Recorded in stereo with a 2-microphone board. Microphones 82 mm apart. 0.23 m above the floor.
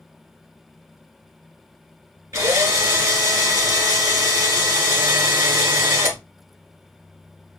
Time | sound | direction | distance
2.3 | a drill | 40° right (ahead or behind) | 3.5 m